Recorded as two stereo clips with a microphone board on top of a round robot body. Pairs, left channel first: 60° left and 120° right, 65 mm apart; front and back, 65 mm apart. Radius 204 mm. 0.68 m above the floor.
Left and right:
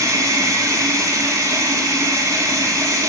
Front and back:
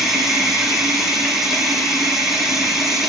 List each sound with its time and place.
0.0 s running water: 95° right, 4.5 m